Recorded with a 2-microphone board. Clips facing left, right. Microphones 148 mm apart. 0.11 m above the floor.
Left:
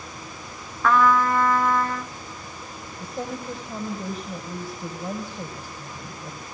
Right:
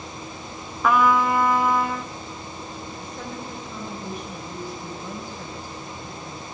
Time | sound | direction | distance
0.8 | a trumpet | 10° right (ahead or behind) | 0.9 m
3.0 | a woman speaking | 45° left (ahead or behind) | 4 m